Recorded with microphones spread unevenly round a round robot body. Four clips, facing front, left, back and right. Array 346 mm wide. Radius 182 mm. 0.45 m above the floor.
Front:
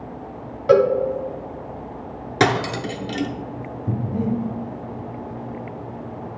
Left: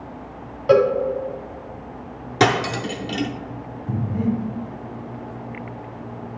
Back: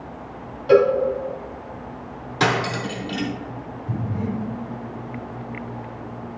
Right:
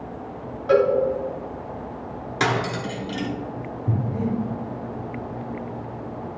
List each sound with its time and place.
0.7 s a cowbell: 40° left, 1.2 m
2.4 s cutlery clinking: 50° left, 0.7 m
3.9 s breathing: 25° right, 1.4 m